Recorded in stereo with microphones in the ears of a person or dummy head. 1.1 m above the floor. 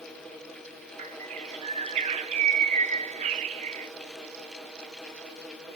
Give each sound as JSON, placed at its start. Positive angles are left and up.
{"t": 1.0, "sound": "a bird", "side_deg": -35, "distance_m": 0.9}